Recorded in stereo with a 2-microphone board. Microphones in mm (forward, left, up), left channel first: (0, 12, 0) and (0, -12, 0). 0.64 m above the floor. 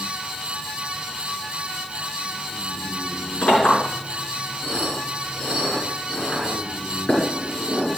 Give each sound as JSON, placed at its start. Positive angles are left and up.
{"t": 3.4, "sound": "a clink", "side_deg": 50, "distance_m": 6.5}